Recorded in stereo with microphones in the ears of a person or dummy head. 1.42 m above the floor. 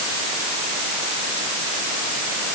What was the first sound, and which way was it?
Only background noise.